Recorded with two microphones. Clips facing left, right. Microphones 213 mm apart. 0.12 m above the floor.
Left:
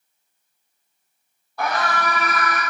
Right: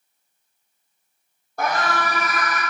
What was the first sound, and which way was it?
A scream, 50° right (ahead or behind).